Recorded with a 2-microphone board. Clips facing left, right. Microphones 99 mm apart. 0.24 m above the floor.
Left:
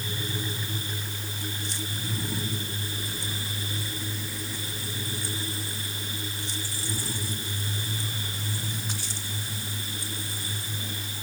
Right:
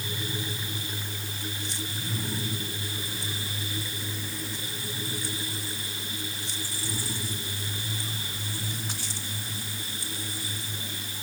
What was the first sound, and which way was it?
Only background noise.